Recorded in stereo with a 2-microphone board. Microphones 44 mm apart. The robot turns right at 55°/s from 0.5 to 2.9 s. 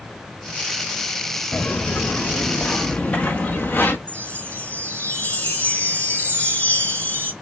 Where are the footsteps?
50° left (ahead or behind), 1.0 m.